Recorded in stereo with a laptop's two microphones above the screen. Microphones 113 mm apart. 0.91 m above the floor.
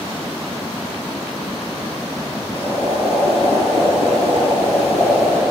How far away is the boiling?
About 4 m.